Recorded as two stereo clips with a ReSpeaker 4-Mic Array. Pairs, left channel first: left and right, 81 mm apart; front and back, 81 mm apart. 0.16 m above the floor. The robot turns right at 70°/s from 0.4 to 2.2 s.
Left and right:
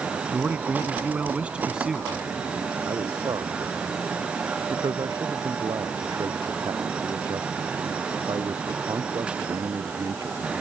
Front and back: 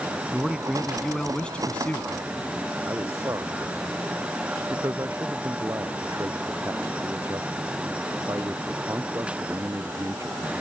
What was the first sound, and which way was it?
A man speaking, 125° right.